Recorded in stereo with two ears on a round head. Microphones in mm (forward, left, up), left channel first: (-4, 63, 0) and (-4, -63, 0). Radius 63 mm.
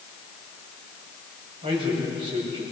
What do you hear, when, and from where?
1.6 s a man speaking: 40° right (ahead or behind), 6.5 m